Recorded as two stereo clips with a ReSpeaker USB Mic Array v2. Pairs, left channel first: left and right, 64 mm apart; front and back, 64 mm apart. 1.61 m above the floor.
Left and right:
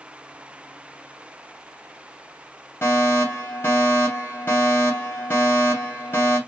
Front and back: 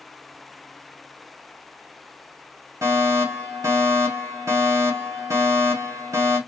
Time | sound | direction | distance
2.8 | a fire alarm | 140° left | 2 m